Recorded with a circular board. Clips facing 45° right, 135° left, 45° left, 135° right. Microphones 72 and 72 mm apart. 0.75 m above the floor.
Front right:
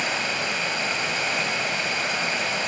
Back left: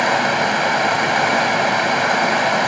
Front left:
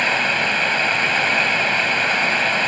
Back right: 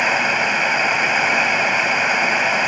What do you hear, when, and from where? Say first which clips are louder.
0.0 s running water: back left 11 dB, back right 2 dB; 150° left, 1.1 m